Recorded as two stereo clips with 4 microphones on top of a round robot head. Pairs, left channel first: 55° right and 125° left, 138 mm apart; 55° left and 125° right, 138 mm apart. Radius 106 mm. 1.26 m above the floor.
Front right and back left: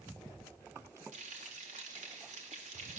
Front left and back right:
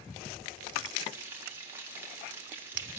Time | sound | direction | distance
1.1 | frying | 160° left | 3.5 m